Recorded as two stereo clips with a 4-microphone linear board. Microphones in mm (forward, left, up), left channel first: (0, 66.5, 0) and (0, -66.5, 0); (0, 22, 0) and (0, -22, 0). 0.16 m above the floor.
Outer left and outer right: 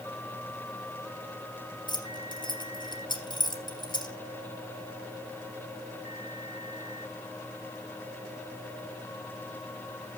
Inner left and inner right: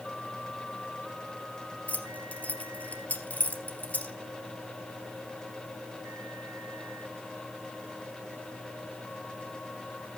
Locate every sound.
1.9 s keys jangling: 35° left (ahead or behind), 2.5 m